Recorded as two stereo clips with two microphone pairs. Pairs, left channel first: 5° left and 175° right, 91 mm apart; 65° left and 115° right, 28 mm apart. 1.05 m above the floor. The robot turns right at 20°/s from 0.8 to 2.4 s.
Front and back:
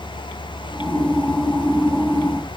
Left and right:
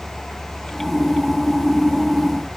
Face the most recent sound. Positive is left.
No sound to turn to.